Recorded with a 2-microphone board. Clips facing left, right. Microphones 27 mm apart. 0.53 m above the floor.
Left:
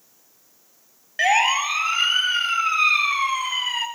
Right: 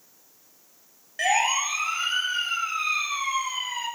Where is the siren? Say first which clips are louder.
Left 4 dB; 30° left (ahead or behind), 3 m; by 3.9 s 60° left (ahead or behind), 6 m.